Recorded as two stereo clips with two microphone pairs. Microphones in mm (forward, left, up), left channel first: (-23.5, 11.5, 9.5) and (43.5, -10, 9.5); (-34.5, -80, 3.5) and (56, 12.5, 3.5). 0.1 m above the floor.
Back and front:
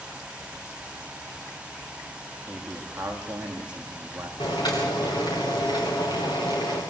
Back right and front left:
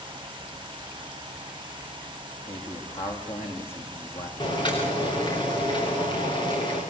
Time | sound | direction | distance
2.5 | a man speaking | 95° right | 6.5 m
4.4 | boiling | 175° left | 6.5 m